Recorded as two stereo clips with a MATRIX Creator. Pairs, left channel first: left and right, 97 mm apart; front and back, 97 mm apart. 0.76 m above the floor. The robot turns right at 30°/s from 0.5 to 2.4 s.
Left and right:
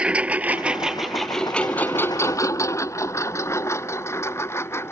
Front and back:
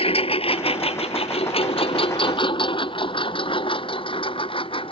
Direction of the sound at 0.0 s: 10° right.